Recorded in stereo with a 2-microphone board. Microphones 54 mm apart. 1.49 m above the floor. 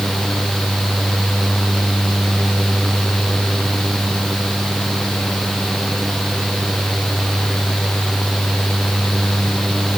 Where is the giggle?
No giggle in this recording.